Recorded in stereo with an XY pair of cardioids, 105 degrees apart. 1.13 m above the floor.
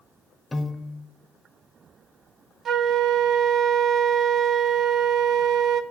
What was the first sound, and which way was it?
A piano, 15° left.